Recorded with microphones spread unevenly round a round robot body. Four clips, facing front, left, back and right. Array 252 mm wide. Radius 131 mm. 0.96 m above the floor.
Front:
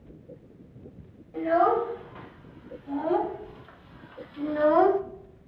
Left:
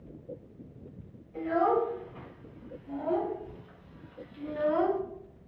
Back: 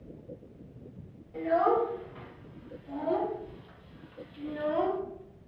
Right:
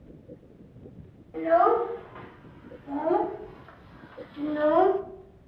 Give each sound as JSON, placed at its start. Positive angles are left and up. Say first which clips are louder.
{"t": 1.3, "sound": "a child speaking", "louder": "right 5 dB, front 3 dB", "azimuth_deg": -70, "distance_m": 3.0}